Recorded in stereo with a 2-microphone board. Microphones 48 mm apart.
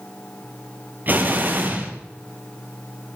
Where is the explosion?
45° right (ahead or behind), 3 m.